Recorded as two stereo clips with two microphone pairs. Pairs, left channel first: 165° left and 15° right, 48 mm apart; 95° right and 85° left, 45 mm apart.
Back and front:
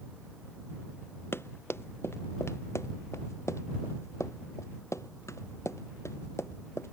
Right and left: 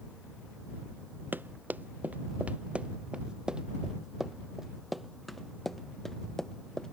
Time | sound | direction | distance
1.3 | running footsteps | 130° left | ?